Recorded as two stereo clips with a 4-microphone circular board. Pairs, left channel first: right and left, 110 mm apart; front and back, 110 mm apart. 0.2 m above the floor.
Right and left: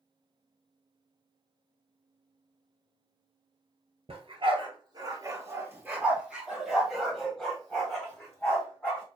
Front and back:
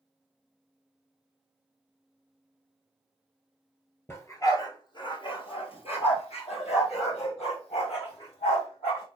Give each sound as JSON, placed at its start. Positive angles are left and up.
{"t": 4.1, "sound": "a dog barking", "azimuth_deg": 65, "distance_m": 1.7}